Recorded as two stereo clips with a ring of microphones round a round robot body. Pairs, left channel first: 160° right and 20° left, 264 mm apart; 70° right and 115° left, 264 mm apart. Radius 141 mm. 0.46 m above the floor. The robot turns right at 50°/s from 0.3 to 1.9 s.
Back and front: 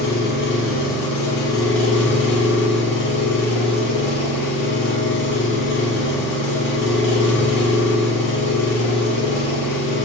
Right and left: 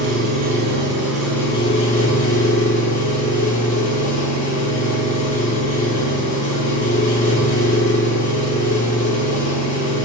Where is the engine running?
155° left, 1.1 m; by 10.1 s 125° right, 1.1 m.